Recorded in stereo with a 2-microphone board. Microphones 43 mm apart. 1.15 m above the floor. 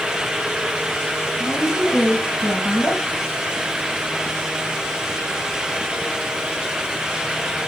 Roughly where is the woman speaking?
Left.